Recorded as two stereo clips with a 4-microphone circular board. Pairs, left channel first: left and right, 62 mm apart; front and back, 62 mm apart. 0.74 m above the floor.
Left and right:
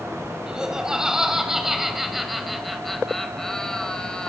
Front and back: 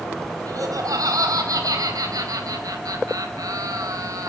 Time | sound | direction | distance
0.5 | laughter | 165° right | 4.5 m